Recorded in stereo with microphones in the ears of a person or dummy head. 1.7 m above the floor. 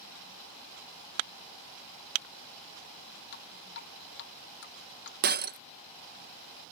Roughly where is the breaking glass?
Right.